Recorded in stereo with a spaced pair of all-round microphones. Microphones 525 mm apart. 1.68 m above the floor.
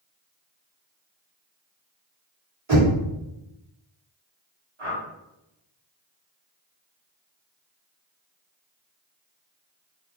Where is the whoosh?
60° right (ahead or behind), 1.5 m.